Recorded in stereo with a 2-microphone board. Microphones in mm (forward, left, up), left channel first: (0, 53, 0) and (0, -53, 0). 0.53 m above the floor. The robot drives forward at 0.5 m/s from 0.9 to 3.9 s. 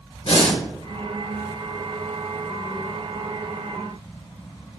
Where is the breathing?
65° left (ahead or behind), 1.5 m.